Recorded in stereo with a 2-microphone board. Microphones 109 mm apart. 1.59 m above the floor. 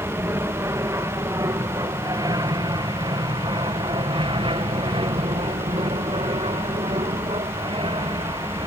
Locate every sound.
0.0 s an aircraft: 25° right (ahead or behind); by 8.7 s 50° right (ahead or behind)